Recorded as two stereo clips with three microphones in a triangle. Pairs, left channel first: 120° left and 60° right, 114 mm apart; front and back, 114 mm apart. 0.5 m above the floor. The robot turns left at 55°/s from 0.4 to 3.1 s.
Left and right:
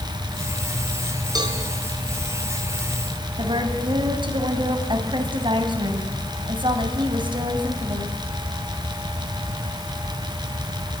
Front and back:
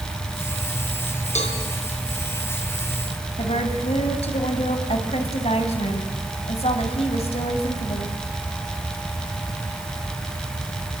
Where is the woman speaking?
15° right, 3.5 m.